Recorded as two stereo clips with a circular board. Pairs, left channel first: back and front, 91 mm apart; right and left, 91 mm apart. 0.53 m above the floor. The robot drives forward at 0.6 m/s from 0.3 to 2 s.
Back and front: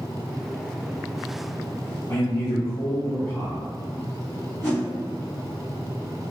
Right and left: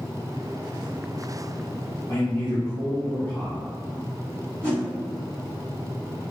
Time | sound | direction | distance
2.1 | a man speaking | 140° right | 1.1 m
4.6 | a whoosh | 145° right | 1.3 m